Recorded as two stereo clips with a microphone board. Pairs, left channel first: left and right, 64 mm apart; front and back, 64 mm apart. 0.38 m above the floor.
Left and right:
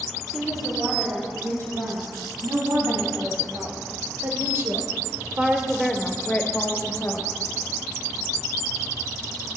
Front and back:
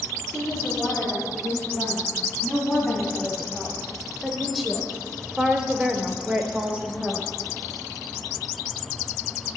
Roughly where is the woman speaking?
Right.